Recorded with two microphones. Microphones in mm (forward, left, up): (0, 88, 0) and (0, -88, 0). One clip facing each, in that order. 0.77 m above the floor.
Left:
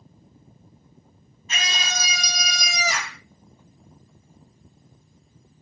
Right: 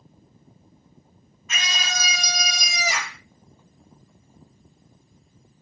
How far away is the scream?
About 1.1 m.